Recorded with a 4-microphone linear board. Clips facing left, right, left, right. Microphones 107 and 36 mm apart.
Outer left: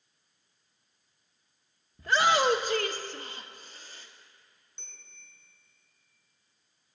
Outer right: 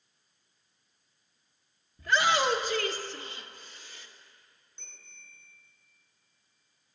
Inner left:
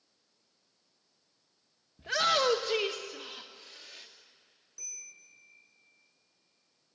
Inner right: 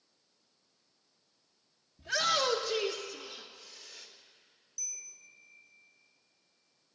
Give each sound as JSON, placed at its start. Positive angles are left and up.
{"t": 2.0, "sound": "a shout", "side_deg": 30, "distance_m": 1.2}
{"t": 4.8, "sound": "a bell", "side_deg": 30, "distance_m": 9.0}